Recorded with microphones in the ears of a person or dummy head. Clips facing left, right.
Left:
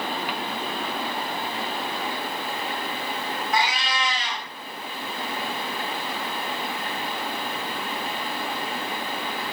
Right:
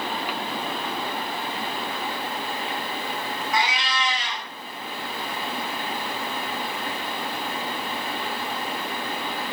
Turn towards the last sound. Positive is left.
turn(degrees=35)  # may be behind; listen again after turning